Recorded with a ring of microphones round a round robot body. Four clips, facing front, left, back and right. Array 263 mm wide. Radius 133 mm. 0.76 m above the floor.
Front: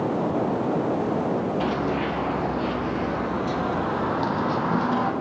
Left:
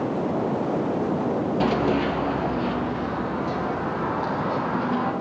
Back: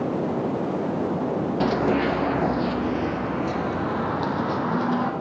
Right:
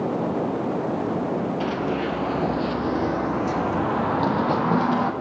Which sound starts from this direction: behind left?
Running footsteps, at 1.6 s.